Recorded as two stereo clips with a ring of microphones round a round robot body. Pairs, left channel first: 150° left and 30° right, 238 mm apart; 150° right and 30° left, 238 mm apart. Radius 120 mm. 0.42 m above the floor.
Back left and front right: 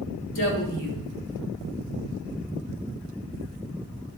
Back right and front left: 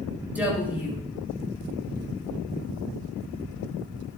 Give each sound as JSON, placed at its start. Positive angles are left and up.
{"t": 0.3, "sound": "a woman speaking", "azimuth_deg": 115, "distance_m": 4.0}